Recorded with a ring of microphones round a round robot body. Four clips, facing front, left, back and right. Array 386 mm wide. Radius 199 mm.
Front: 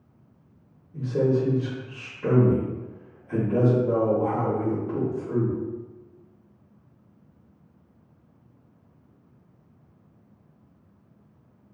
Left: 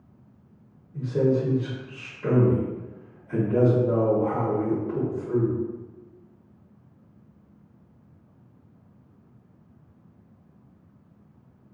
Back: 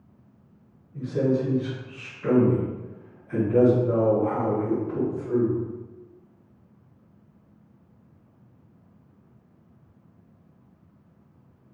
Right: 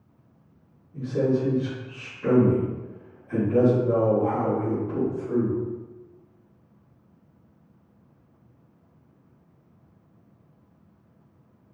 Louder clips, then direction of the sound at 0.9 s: Left 1 dB, front 1 dB; 5° left.